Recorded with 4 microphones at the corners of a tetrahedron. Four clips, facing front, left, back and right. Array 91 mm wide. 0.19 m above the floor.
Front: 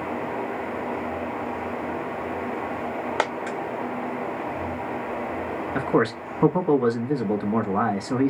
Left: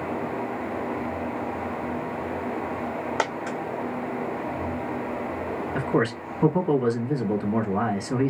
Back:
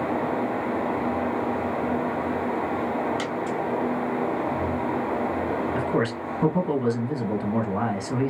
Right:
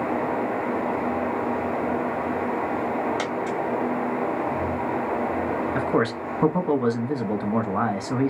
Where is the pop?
No pop in this recording.